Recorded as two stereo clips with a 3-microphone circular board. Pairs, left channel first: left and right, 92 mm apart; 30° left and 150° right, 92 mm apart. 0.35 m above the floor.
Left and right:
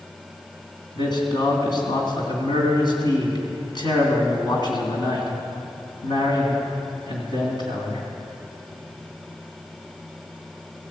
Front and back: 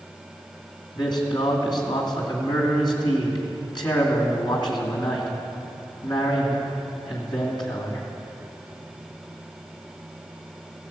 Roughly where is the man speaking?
Ahead left.